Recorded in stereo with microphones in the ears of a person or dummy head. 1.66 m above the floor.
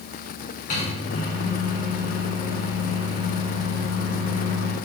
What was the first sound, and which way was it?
A microwave, 50° left (ahead or behind).